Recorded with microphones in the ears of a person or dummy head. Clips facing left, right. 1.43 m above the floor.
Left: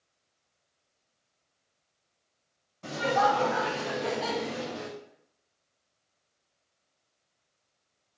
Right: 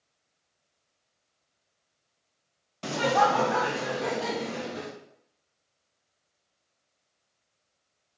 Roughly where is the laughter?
Right.